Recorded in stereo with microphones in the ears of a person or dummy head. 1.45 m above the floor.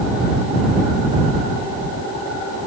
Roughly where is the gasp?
I don't hear a gasp.